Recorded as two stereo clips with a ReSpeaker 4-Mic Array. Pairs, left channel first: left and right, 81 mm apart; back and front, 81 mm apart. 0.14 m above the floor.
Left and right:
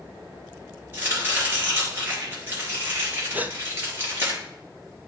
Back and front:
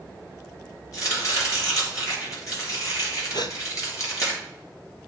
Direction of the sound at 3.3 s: 160° right.